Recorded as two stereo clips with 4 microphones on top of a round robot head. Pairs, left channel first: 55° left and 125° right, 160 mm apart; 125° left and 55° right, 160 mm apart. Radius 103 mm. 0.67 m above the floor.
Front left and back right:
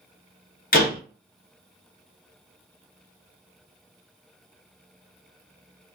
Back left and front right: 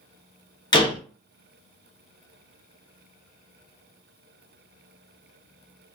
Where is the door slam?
65° left, 1.1 m.